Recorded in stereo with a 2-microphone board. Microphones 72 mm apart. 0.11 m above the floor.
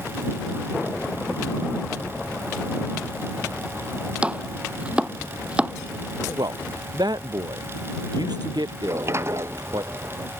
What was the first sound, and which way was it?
Chopping, 15° right (ahead or behind).